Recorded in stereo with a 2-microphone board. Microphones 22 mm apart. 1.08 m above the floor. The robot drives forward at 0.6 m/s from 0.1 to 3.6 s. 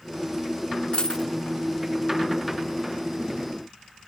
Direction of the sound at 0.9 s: 40° left (ahead or behind).